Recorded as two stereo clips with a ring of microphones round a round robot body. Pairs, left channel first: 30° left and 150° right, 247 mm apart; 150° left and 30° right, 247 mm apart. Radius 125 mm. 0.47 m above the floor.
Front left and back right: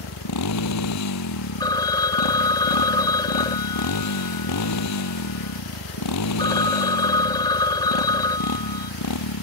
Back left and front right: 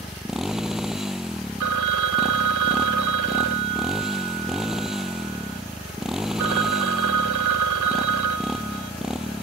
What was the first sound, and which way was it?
A motorcycle, 60° left.